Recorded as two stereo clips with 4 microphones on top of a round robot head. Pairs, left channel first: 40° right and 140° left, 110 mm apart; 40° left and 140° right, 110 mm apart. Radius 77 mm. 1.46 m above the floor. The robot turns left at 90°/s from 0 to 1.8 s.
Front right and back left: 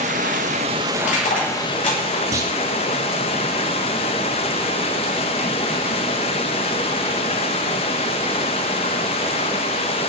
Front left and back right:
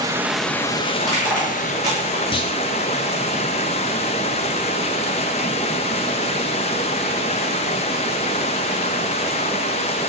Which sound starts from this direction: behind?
Running water, at 0.0 s.